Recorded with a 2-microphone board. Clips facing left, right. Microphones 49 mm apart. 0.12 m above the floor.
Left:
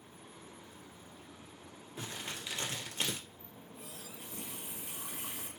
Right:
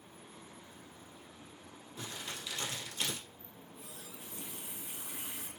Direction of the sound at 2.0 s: 35° left (ahead or behind).